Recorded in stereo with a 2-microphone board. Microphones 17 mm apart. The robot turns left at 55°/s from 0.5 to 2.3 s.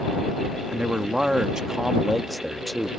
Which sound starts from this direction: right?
A man speaking, at 0.7 s.